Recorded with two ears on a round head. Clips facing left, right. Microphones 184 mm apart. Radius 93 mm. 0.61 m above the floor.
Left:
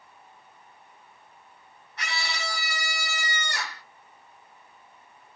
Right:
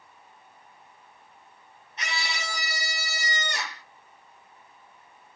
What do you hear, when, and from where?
2.0 s a scream: 20° right (ahead or behind), 1.6 m